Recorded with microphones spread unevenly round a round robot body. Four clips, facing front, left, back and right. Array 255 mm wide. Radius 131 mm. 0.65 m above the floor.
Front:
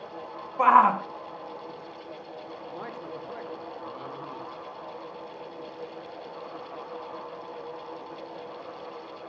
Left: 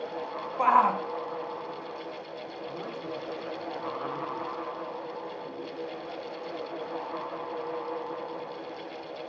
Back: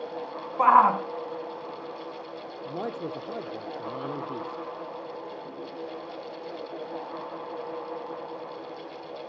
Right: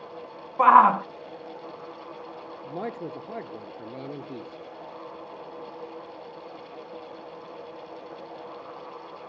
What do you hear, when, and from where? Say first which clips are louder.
0.6 s a shout: right 7 dB, even; 85° right, 0.8 m
2.6 s a man speaking: right 5 dB, back 7 dB; 135° right, 1.3 m